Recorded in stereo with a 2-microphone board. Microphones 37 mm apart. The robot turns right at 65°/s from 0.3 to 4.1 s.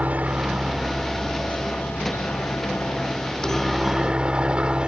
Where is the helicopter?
40° right; by 4.9 s 155° right.